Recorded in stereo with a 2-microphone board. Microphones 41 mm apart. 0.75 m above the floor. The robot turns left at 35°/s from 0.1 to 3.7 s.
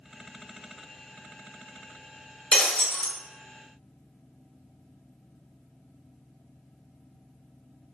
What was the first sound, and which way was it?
Breaking glass, 25° left (ahead or behind).